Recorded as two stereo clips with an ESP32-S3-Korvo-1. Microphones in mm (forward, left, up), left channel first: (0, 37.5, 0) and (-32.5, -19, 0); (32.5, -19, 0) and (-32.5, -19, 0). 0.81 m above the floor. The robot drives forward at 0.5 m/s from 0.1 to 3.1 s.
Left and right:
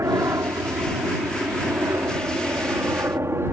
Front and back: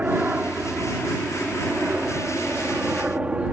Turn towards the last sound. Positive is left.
turn(degrees=-120)